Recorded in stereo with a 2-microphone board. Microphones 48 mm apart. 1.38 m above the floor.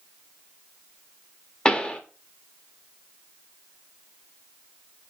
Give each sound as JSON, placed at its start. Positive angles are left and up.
{"t": 1.6, "sound": "a pop", "side_deg": 20, "distance_m": 0.5}